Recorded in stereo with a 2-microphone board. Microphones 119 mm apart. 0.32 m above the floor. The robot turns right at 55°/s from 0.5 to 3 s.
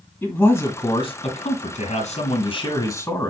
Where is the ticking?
I don't hear ticking.